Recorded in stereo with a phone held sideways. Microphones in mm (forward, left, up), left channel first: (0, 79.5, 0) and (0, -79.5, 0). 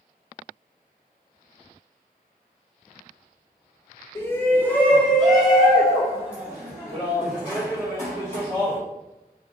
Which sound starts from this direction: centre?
A shout, at 4.2 s.